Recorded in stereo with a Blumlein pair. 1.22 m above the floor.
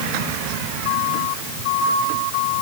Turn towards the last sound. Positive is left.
No sound to turn to.